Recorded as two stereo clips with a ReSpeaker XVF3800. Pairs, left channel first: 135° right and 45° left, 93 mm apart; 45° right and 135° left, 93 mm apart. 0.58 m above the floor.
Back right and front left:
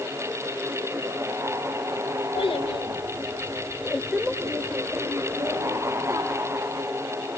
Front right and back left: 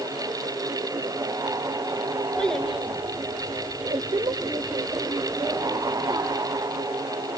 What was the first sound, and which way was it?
A child speaking, 125° right.